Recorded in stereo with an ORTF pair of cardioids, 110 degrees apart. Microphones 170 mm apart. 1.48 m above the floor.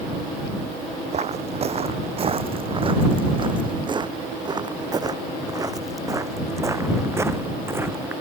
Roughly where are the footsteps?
Ahead right.